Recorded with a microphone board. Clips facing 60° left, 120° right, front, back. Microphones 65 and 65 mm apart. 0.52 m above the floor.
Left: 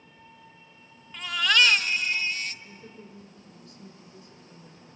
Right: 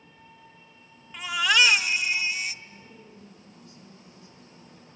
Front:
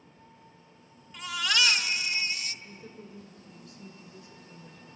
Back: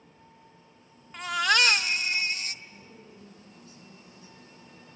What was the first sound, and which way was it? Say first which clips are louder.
A baby crying: right 1 dB, back 5 dB; 165° left.